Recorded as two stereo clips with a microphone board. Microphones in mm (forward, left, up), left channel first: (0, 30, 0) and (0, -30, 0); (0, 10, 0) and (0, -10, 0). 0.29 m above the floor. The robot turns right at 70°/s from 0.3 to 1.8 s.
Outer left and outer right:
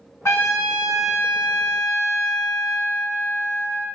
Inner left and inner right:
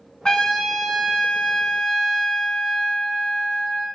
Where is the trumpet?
55° left, 1.1 m; by 3.9 s 160° left, 1.1 m.